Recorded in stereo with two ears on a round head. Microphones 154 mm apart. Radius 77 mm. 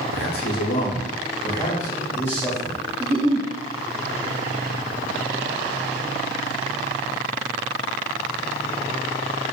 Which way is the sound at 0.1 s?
70° left (ahead or behind).